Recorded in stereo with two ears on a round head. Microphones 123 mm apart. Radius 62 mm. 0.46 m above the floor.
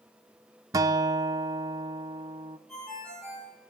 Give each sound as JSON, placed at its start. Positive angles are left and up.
{"t": 0.7, "sound": "a guitar", "side_deg": -25, "distance_m": 0.5}
{"t": 2.7, "sound": "a ringtone", "side_deg": 5, "distance_m": 7.0}